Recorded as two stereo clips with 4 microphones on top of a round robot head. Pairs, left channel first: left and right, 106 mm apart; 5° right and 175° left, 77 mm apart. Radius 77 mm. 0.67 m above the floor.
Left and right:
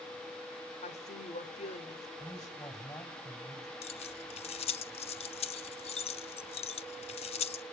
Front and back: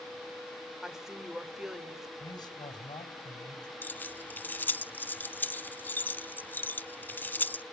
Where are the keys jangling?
60° left, 0.8 m.